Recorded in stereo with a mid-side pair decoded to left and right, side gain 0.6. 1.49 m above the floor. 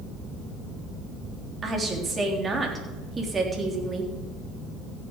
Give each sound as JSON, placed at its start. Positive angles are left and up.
{"t": 1.6, "sound": "a woman speaking", "azimuth_deg": -25, "distance_m": 3.5}